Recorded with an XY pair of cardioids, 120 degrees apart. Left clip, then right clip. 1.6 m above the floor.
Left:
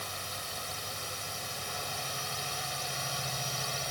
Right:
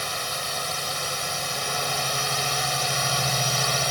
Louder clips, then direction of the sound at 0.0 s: Right 10 dB; 60° right.